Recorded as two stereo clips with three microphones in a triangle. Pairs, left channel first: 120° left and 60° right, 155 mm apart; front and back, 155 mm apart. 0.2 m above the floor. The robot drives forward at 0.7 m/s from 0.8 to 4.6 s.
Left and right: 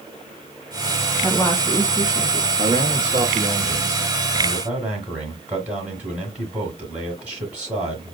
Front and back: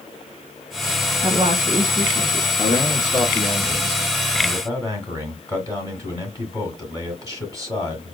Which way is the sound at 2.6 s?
40° right.